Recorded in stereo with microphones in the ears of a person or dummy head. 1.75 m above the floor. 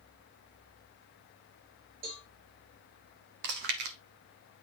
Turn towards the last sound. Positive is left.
turn(degrees=-60)  # may be behind; listen again after turning